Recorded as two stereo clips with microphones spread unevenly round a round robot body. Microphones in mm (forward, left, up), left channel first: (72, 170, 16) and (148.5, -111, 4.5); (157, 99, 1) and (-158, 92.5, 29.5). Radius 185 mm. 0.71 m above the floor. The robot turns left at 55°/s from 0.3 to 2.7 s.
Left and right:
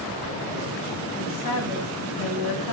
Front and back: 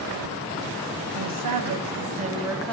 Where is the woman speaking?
175° left, 4.5 m; by 2.7 s 85° left, 4.5 m.